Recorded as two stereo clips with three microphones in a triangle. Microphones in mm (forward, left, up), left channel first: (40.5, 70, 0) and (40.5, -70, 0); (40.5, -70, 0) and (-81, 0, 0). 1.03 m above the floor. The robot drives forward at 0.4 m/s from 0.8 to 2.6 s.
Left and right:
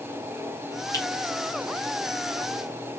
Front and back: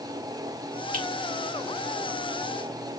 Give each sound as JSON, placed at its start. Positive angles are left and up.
{"t": 0.9, "sound": "a finger snap", "azimuth_deg": 155, "distance_m": 1.8}